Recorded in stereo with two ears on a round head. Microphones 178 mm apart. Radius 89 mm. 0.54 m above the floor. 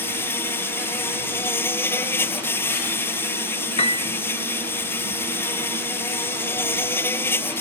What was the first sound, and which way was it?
An insect, 10° left (ahead or behind).